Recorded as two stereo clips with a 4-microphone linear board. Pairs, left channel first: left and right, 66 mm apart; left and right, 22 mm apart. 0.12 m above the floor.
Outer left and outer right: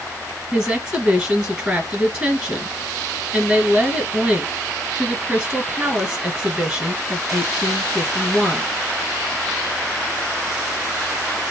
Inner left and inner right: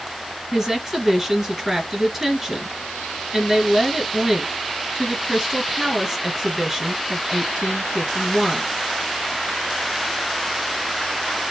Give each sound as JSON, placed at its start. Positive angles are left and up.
{"t": 0.5, "sound": "a woman speaking", "side_deg": -10, "distance_m": 1.7}